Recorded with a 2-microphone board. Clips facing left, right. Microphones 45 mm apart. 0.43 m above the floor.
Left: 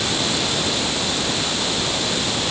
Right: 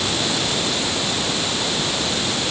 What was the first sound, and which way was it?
Only background noise.